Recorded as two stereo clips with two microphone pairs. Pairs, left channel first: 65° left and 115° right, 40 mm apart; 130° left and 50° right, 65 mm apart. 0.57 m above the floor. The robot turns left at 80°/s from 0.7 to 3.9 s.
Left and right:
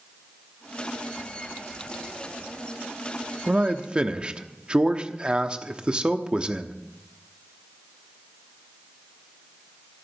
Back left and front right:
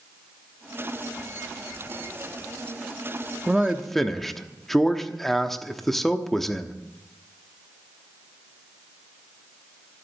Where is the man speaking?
105° right, 0.9 m; by 6.8 s 140° right, 0.9 m.